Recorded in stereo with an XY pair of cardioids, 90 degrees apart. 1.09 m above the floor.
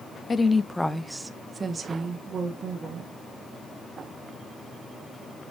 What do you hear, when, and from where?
0.3 s a woman speaking: 30° left, 0.7 m; by 3.1 s 70° right, 1.6 m